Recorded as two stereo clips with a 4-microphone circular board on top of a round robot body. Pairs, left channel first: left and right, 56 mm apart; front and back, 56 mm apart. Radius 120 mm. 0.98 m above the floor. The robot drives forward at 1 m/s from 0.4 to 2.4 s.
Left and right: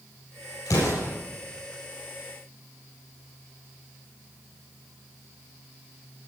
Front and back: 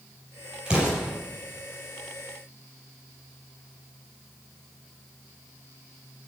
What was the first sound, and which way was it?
An explosion, 105° left.